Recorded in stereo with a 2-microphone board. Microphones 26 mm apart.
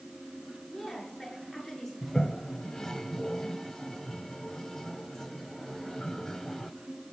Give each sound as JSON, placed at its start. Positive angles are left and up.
{"t": 0.7, "sound": "a woman speaking", "side_deg": 25, "distance_m": 6.5}
{"t": 2.0, "sound": "a toilet flushing", "side_deg": 20, "distance_m": 0.7}